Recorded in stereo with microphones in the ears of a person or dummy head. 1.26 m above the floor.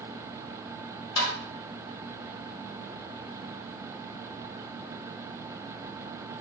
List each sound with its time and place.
1.2 s tapping: 25° left (ahead or behind), 1.2 m